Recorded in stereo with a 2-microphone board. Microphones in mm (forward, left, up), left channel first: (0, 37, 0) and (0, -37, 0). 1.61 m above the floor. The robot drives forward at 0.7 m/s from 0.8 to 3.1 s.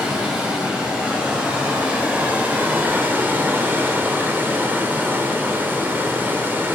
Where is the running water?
15° right (ahead or behind), 2.5 m; by 6.8 s 30° right (ahead or behind), 1.6 m.